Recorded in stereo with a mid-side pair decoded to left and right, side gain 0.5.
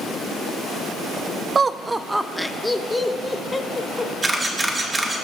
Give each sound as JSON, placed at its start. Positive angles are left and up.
{"t": 1.6, "sound": "laughter", "azimuth_deg": -30, "distance_m": 0.7}
{"t": 4.2, "sound": "a camera shutter", "azimuth_deg": -20, "distance_m": 3.5}